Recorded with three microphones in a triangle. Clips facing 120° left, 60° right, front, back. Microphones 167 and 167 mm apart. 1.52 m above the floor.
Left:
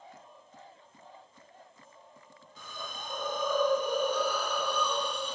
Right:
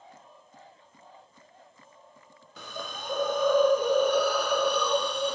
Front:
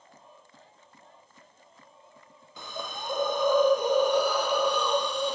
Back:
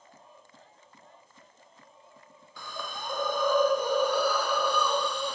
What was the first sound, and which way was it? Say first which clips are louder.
A hiss: right 5 dB, front 2 dB; 70° right.